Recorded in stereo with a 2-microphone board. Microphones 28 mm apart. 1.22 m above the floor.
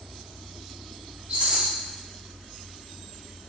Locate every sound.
1.3 s a rattle: 70° right (ahead or behind), 1.4 m